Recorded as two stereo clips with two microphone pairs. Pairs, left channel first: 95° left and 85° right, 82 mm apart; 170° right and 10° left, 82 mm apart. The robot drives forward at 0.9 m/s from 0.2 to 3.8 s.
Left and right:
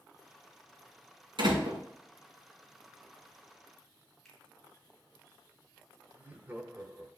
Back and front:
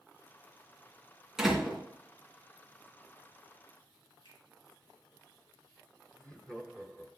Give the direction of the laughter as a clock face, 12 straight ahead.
3 o'clock.